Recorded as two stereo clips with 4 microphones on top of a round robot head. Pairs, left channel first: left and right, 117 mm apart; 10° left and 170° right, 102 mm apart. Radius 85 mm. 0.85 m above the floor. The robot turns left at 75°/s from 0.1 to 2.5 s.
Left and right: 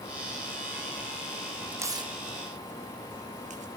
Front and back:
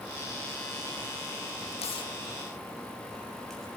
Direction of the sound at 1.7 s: 15° right.